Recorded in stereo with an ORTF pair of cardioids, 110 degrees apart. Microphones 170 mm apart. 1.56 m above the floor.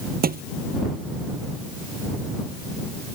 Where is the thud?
60° right.